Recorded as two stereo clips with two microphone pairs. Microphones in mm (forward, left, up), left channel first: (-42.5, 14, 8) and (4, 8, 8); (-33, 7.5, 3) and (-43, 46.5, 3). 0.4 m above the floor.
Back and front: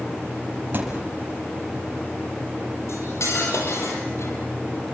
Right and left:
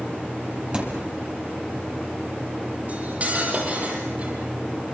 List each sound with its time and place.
0.7 s a thud: 40° left, 5 m
2.9 s cutlery clinking: 160° left, 8.5 m